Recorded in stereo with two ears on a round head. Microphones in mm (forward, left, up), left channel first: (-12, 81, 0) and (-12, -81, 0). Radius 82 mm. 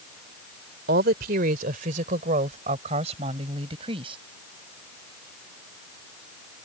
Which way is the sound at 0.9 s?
55° right (ahead or behind).